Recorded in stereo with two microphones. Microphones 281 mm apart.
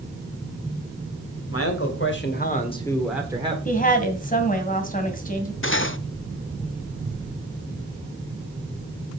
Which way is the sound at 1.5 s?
55° left (ahead or behind).